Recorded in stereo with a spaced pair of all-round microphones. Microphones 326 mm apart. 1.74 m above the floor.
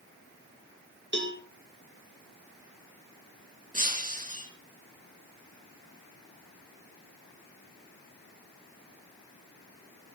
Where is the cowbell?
35° right (ahead or behind), 2.5 m.